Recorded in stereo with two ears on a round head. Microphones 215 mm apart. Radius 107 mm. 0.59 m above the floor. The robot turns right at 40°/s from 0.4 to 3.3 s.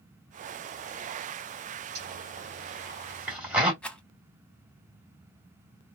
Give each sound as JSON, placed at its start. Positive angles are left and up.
{"t": 1.9, "sound": "a zipper", "side_deg": -40, "distance_m": 1.5}
{"t": 3.8, "sound": "a rattle", "side_deg": 5, "distance_m": 0.8}